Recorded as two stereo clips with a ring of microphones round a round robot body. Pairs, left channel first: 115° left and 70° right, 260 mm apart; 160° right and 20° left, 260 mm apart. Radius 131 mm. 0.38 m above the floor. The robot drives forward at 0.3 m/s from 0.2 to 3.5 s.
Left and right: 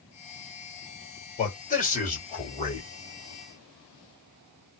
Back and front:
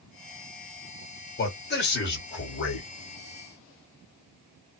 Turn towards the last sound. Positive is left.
turn(degrees=170)